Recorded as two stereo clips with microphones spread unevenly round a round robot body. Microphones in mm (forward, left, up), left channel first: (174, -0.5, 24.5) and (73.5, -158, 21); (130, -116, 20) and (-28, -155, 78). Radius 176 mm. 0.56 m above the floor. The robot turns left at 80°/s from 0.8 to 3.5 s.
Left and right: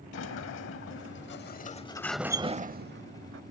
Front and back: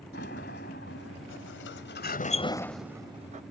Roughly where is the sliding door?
Left.